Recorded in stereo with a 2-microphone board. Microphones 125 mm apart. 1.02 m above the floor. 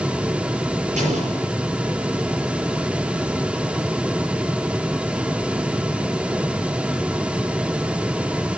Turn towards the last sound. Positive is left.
turn(degrees=-65)  # may be behind; listen again after turning